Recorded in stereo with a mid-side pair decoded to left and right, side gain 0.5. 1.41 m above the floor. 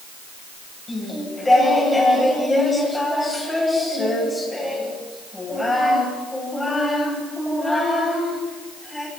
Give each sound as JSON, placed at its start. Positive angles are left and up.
{"t": 0.9, "sound": "singing", "azimuth_deg": 15, "distance_m": 9.5}